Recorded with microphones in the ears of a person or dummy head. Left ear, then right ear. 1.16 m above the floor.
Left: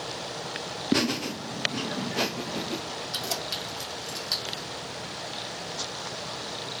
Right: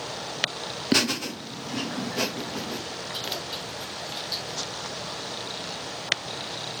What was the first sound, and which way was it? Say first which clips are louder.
Laughter: right 3 dB; 25° right (ahead or behind).